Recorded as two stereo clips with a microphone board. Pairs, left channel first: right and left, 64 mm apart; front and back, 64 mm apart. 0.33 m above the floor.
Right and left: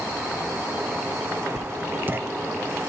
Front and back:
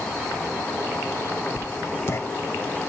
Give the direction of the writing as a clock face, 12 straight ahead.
11 o'clock.